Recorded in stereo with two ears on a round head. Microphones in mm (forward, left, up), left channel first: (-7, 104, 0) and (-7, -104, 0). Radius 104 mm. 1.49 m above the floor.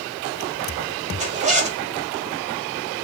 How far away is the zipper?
About 1.1 m.